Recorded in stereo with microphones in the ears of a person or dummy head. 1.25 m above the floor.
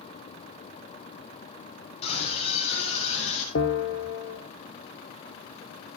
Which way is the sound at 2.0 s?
30° left (ahead or behind).